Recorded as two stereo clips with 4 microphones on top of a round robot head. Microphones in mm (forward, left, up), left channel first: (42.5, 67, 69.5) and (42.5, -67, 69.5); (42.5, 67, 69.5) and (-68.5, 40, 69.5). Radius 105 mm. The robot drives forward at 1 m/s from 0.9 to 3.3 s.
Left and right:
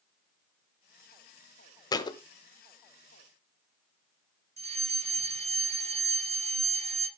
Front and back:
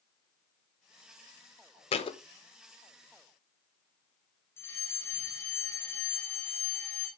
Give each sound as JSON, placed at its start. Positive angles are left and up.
{"t": 1.9, "sound": "a thud", "azimuth_deg": 35, "distance_m": 1.1}
{"t": 4.6, "sound": "a fire alarm", "azimuth_deg": -60, "distance_m": 3.5}